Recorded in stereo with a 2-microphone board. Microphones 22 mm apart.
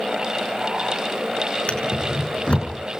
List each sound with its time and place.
1.7 s a drawer: 55° left (ahead or behind), 5 m